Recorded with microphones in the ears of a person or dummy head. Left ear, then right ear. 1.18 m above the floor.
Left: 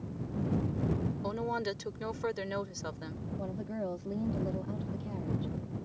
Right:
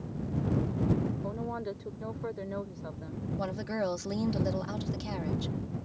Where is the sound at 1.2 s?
80° left.